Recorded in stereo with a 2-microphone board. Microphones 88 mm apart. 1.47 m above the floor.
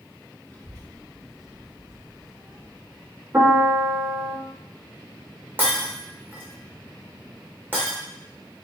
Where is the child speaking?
20° left (ahead or behind), 1.5 m; by 3.1 s 50° right (ahead or behind), 1.5 m.